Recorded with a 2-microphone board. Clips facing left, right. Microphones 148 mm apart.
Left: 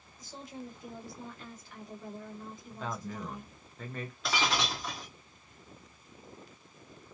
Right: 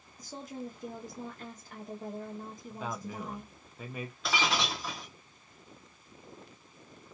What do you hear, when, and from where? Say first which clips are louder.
0.2 s a woman speaking: right 3 dB; 45° right (ahead or behind), 0.6 m
2.7 s a man speaking: even; 10° right (ahead or behind), 0.6 m
4.2 s breaking glass: even; centre (ahead or behind), 0.7 m